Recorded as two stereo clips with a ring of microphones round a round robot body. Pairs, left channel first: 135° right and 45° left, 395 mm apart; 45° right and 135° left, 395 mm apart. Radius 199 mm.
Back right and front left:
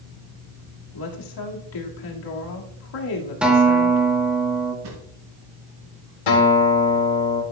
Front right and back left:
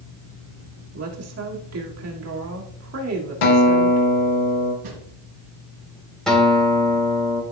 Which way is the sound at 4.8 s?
95° left.